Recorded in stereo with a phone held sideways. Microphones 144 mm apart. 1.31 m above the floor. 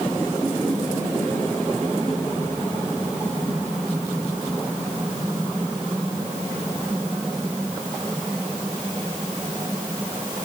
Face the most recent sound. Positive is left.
No sound to turn to.